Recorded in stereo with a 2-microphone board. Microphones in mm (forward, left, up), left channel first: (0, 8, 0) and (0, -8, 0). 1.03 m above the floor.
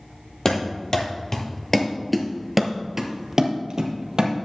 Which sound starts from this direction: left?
Running footsteps, at 0.5 s.